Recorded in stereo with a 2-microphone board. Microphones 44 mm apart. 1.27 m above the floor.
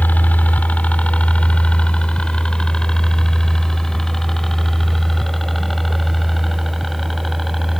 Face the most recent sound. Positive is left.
turn(degrees=0)  # may be behind; listen again after turning